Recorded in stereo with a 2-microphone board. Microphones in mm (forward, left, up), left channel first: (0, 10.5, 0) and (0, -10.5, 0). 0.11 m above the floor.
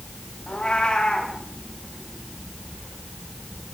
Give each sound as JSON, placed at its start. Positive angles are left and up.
{"t": 0.5, "sound": "a cat meowing", "side_deg": 50, "distance_m": 7.5}